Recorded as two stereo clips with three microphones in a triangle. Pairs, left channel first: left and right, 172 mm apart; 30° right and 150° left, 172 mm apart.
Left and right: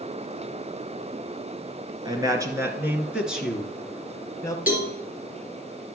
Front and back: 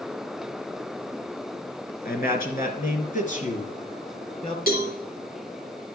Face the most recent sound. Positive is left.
turn(degrees=-10)